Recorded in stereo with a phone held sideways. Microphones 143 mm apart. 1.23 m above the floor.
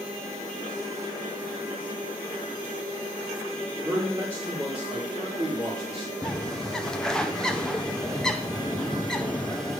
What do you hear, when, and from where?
3.8 s a man speaking: 40° right (ahead or behind), 4 m
6.2 s a bird: 5° left (ahead or behind), 0.6 m